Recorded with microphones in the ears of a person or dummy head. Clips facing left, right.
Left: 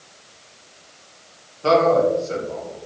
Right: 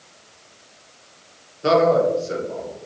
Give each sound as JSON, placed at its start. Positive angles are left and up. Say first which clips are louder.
{"t": 1.6, "sound": "a man speaking", "louder": "even", "side_deg": -20, "distance_m": 1.1}